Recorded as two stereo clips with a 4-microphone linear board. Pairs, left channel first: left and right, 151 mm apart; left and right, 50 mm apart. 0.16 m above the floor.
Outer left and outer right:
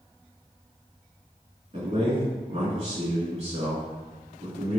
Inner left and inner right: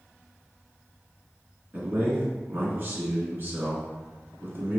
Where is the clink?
I don't hear a clink.